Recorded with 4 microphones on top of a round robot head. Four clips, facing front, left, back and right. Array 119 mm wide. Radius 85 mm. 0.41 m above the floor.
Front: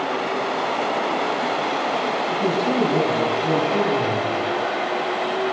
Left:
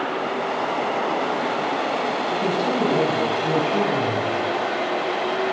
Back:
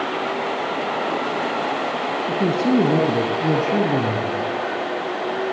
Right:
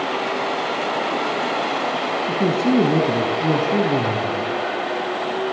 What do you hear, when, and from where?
2.3 s a man speaking: 130° right, 4.5 m; by 4.5 s 140° right, 6 m